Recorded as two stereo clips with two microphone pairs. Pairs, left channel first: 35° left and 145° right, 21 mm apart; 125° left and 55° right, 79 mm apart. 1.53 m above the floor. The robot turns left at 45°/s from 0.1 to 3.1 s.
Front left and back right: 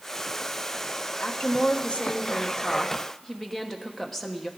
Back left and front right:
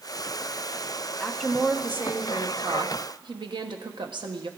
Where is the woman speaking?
45° left, 1.1 m; by 4.5 s 40° right, 1.1 m.